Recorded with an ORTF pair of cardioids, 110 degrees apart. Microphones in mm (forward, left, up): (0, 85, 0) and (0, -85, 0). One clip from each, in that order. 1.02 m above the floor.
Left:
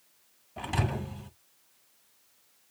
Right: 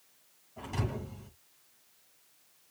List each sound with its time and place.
0.6 s a thud: 60° left, 2 m